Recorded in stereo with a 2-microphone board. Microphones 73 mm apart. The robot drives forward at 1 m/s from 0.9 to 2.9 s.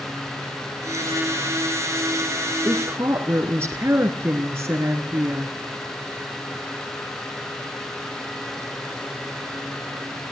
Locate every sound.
2.6 s a woman speaking: 40° right (ahead or behind), 1.8 m; by 5.5 s 35° right (ahead or behind), 1.9 m